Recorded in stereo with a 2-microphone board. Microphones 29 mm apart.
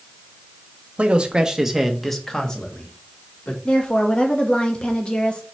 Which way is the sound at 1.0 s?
40° right (ahead or behind).